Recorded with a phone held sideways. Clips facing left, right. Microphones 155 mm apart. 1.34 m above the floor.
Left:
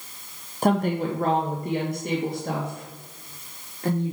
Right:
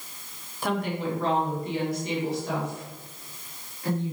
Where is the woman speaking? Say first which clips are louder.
Left 6 dB; 45° left (ahead or behind), 0.7 m; by 4.1 s 55° left (ahead or behind), 2.5 m.